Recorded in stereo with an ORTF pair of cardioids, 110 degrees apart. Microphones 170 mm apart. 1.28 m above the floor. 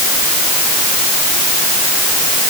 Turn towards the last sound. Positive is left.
No sound to turn to.